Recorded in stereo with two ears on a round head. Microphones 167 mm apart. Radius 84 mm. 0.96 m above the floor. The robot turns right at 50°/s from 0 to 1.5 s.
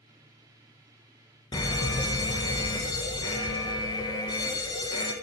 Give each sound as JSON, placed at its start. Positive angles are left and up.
{"t": 1.5, "sound": "a fire alarm", "side_deg": 20, "distance_m": 1.1}